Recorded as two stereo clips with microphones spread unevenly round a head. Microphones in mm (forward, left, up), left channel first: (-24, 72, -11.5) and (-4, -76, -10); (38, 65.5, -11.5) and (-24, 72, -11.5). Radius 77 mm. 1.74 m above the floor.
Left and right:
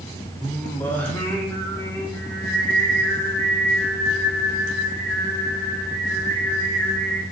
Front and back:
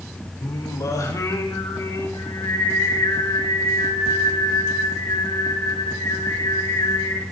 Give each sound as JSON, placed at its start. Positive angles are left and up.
{"t": 0.4, "sound": "singing", "azimuth_deg": 20, "distance_m": 3.5}